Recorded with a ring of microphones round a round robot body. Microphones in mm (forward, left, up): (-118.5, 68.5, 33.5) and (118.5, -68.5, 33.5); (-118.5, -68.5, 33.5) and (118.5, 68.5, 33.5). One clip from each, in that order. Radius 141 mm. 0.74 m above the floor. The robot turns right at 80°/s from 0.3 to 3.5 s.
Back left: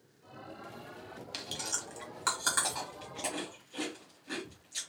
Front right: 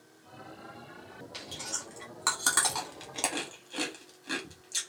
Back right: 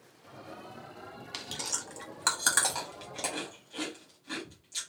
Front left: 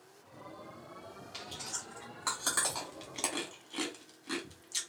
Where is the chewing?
170° left, 1.4 m; by 4.8 s 15° right, 1.4 m.